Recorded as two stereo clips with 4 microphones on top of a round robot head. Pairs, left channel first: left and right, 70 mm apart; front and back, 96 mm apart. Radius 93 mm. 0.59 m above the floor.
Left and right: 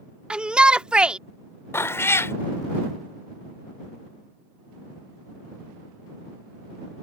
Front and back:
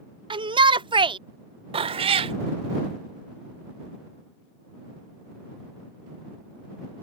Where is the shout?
165° right.